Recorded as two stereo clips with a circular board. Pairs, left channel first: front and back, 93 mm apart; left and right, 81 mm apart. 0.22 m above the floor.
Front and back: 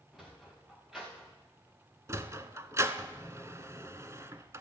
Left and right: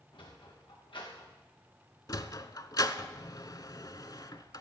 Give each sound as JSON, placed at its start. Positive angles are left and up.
{"t": 0.1, "sound": "a sliding door", "azimuth_deg": 95, "distance_m": 3.5}
{"t": 2.1, "sound": "a sliding door", "azimuth_deg": 120, "distance_m": 0.8}